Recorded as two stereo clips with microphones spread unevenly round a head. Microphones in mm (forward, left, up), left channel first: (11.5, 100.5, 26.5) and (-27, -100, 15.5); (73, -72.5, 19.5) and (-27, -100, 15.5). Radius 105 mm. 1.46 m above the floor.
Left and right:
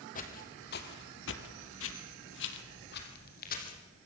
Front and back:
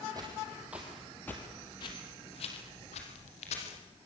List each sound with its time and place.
0.1 s footsteps: 125° left, 3.5 m; by 3.8 s 30° left, 4.5 m